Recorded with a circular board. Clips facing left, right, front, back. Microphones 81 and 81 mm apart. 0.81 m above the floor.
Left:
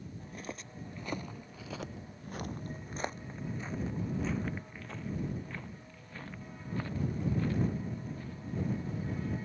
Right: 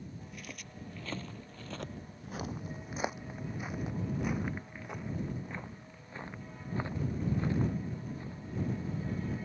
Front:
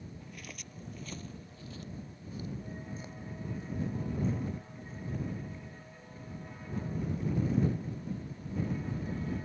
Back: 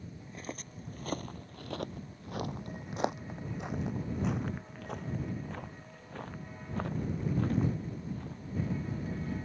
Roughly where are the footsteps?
Behind left.